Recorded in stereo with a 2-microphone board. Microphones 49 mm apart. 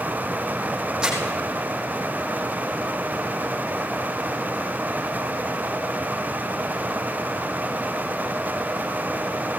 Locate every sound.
1.0 s crumpling: 15° right (ahead or behind), 5.5 m